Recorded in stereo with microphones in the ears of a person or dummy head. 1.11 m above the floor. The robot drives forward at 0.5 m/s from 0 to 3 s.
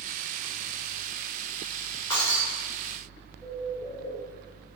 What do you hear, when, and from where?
2.1 s breaking glass: 30° left (ahead or behind), 1.0 m; by 2.4 s 25° left (ahead or behind), 1.1 m
3.4 s a bird: 15° left (ahead or behind), 1.6 m